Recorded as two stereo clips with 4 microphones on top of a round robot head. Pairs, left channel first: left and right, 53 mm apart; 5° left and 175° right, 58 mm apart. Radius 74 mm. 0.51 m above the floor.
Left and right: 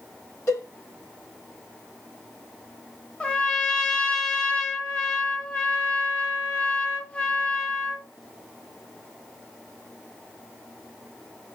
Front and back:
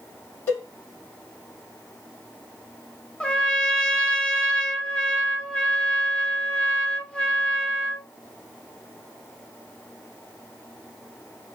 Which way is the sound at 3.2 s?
50° left.